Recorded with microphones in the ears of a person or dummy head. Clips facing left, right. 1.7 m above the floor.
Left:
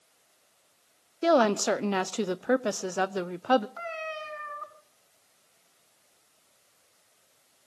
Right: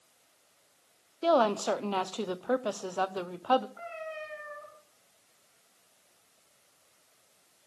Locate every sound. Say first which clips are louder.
1.2 s a woman speaking: left 3 dB; 20° left (ahead or behind), 0.6 m
3.8 s a cat meowing: left 3 dB; 75° left (ahead or behind), 6 m